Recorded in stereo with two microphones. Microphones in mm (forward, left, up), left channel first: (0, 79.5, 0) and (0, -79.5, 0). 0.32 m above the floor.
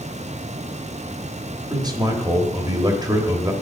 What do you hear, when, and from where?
1.7 s a man speaking: 25° right (ahead or behind), 1.1 m